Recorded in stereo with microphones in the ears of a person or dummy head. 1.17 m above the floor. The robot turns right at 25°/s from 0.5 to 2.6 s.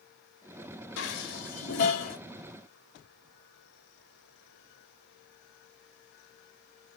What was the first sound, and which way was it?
Dishes clattering, 70° left (ahead or behind).